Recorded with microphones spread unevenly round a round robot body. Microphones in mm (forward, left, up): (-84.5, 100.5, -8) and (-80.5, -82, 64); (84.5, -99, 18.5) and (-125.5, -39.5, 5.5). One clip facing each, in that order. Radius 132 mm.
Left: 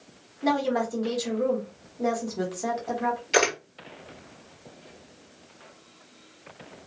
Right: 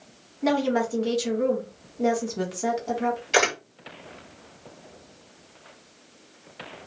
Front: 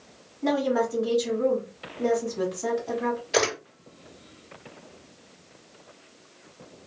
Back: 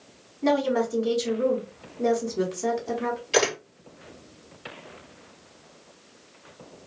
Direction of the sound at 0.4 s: 160° right.